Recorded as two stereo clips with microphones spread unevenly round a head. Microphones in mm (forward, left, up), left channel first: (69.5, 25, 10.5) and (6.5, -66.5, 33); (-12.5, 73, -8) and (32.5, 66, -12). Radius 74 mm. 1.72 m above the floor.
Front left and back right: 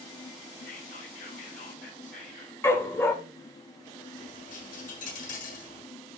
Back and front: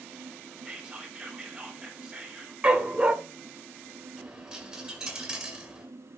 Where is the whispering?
55° left, 6 m.